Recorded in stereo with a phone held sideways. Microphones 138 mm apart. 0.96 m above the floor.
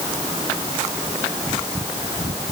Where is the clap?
No clap in this recording.